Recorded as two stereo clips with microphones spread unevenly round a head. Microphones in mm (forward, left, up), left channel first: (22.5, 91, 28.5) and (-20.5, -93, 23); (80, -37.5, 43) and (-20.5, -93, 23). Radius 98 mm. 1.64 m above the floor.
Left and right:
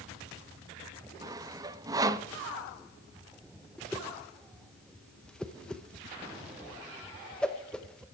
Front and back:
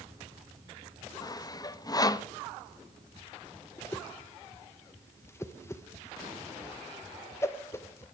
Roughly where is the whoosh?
Ahead.